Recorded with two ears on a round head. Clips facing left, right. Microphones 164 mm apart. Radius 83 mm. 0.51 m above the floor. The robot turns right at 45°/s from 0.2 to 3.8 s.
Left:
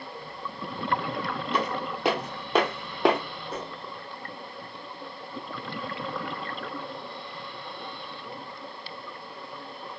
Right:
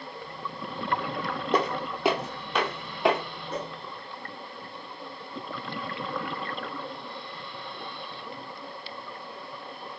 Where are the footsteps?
40° right (ahead or behind), 0.6 m; by 3.2 s 65° left (ahead or behind), 1.0 m.